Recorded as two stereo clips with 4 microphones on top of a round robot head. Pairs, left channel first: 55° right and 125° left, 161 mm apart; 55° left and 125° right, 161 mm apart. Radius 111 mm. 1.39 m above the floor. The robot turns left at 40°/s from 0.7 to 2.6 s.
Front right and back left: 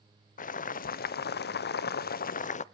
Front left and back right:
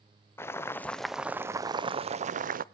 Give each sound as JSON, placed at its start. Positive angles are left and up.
{"t": 0.4, "sound": "boiling", "azimuth_deg": -20, "distance_m": 0.7}